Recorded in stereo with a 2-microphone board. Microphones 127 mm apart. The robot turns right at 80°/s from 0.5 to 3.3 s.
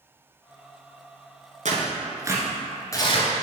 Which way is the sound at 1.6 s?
75° right (ahead or behind).